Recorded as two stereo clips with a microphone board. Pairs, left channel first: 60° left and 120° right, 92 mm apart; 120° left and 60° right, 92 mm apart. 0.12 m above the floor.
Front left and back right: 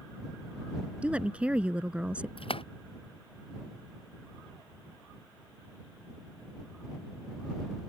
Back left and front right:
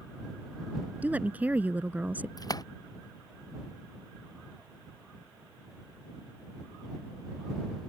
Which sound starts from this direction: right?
A woman speaking, at 1.0 s.